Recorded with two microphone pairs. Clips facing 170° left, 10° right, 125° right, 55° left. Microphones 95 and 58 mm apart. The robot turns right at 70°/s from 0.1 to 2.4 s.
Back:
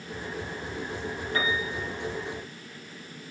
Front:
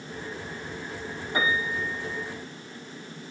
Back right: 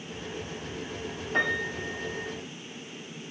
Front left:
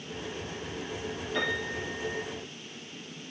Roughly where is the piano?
Right.